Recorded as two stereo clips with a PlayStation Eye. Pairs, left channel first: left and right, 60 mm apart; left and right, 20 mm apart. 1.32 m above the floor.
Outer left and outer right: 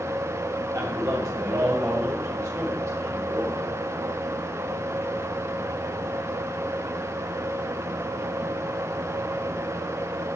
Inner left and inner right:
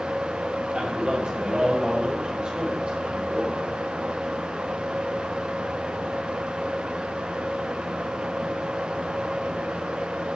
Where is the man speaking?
75° right (ahead or behind), 6 m; by 3.7 s 55° right (ahead or behind), 5 m.